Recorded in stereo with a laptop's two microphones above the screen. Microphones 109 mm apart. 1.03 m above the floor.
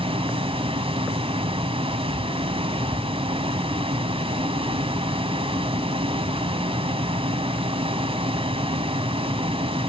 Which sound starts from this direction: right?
A fan, at 0.0 s.